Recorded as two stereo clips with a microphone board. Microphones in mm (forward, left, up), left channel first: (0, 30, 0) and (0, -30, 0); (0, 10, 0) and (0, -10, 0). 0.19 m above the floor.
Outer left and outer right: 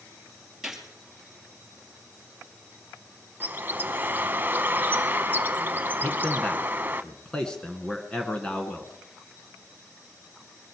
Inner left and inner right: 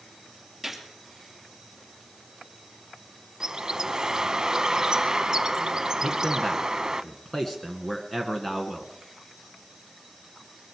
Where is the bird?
35° right (ahead or behind), 0.6 m.